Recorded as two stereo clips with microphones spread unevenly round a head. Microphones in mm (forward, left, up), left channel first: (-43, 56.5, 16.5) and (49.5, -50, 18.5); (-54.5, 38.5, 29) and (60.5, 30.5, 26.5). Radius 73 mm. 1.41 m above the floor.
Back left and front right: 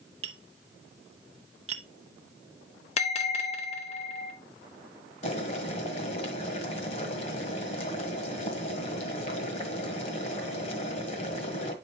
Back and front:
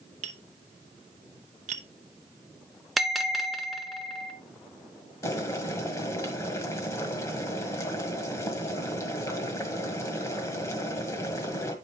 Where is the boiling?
130° left, 1.5 m.